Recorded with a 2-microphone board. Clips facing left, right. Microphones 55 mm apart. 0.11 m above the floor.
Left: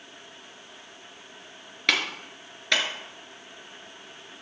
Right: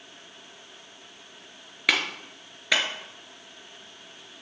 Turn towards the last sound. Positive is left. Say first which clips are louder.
# right 1 dB
turn(degrees=-5)  # may be behind; listen again after turning